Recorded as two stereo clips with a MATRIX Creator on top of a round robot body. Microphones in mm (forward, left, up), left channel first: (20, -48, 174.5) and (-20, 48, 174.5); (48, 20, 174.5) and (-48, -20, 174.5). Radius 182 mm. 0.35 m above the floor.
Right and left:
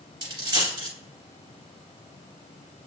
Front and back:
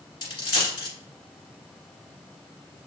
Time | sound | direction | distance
0.2 | a dropped coin | 65° left | 1.5 m